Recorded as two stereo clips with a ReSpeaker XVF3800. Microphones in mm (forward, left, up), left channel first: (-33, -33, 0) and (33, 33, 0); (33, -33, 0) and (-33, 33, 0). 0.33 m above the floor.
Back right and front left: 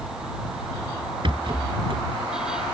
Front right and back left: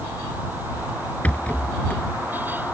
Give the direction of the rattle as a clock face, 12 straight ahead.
11 o'clock.